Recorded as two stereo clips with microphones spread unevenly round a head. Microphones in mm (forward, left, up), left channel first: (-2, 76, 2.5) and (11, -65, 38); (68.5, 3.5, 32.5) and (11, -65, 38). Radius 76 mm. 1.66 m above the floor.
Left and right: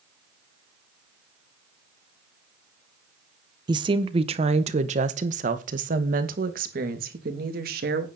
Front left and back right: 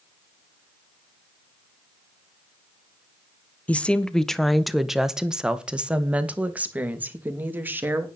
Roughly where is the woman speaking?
Ahead right.